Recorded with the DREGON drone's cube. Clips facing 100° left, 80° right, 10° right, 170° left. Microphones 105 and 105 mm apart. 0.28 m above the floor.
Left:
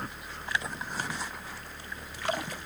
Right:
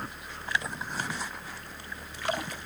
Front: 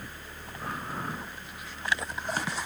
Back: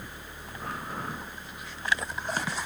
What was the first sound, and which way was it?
Only background noise.